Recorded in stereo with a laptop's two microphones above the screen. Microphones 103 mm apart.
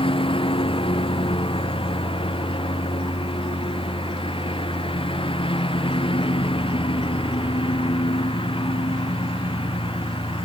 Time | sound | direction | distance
0.0 | a lawn mower | 60° left (ahead or behind) | ?